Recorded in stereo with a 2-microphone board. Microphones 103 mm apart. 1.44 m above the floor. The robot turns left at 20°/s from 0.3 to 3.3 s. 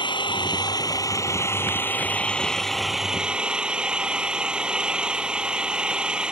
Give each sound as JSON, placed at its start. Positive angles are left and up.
{"t": 0.0, "sound": "an engine running", "azimuth_deg": 50}